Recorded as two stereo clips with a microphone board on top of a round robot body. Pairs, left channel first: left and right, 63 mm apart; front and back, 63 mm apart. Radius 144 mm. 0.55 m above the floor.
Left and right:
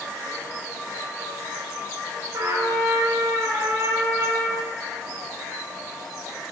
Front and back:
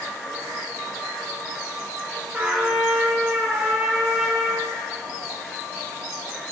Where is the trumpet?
105° right, 1.7 m.